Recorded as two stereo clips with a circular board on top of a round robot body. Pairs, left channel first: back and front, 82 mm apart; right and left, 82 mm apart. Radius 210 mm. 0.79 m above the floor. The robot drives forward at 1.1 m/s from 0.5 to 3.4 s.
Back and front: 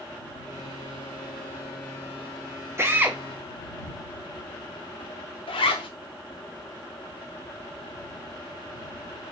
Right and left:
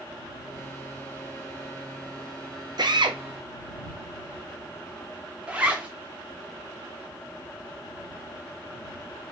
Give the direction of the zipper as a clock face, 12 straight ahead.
6 o'clock.